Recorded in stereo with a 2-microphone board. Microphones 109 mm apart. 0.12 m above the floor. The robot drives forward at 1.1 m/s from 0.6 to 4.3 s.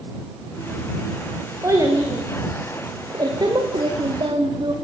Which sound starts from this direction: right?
A child speaking, at 1.6 s.